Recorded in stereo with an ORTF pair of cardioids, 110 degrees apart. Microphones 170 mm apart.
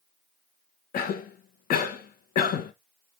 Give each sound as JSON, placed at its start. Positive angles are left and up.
{"t": 0.9, "sound": "a cough", "azimuth_deg": 60, "distance_m": 1.1}